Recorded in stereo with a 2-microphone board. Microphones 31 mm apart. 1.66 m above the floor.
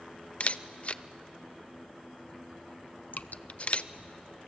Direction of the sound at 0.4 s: 45° left (ahead or behind).